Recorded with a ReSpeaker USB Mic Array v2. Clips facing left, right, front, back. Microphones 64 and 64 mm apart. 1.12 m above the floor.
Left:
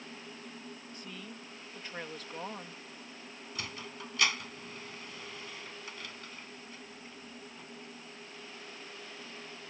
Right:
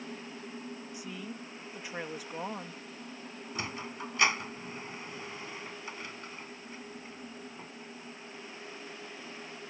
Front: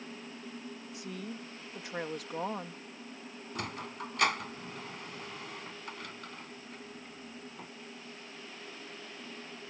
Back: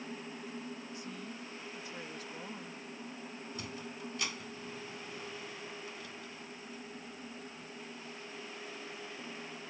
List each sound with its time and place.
0.9 s a woman speaking: 10° right
3.5 s a sliding door: 25° right